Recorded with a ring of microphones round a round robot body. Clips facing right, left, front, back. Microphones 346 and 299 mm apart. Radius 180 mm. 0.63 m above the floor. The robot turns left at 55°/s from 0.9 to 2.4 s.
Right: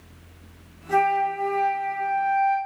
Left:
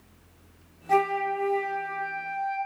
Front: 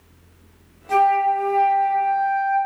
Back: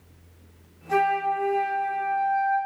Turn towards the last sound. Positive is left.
turn(degrees=-75)